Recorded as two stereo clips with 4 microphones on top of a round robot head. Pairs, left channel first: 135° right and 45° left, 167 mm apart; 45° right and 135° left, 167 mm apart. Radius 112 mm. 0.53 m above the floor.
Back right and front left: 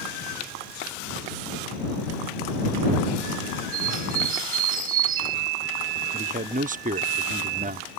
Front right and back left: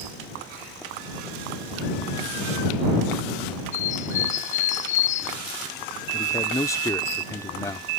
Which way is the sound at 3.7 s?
5° left.